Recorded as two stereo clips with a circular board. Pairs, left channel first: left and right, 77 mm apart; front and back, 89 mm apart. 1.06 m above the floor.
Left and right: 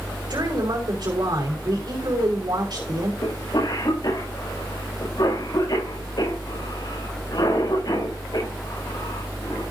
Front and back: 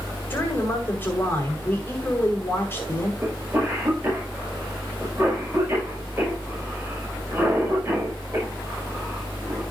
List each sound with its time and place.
0.3 s a woman speaking: 65° right, 5.5 m
3.2 s a cough: 115° left, 6 m